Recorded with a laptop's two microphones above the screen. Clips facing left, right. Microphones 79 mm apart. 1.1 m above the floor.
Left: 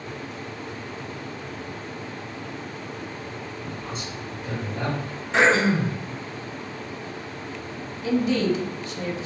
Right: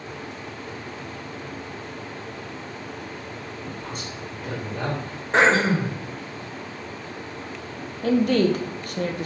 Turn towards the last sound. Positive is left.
turn(degrees=-55)  # may be behind; listen again after turning